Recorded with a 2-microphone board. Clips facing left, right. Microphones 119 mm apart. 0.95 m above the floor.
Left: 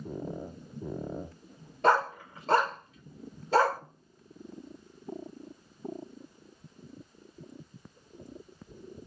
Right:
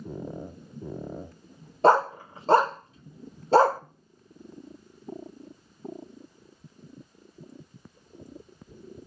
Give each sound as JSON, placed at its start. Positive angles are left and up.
{"t": 1.8, "sound": "a dog barking", "side_deg": -30, "distance_m": 0.7}